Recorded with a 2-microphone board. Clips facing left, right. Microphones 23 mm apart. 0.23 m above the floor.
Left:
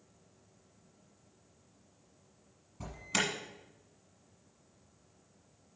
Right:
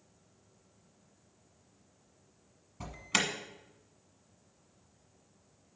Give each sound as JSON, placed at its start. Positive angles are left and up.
{"t": 2.8, "sound": "an alarm", "side_deg": -30, "distance_m": 1.3}